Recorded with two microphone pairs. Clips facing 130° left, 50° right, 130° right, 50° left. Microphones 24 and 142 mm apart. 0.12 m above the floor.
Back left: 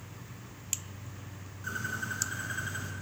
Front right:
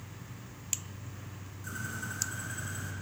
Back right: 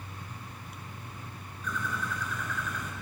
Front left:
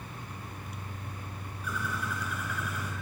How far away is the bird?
About 1.7 m.